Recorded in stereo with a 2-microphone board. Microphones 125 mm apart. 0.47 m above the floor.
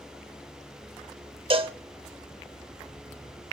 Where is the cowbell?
45° right (ahead or behind), 0.6 m.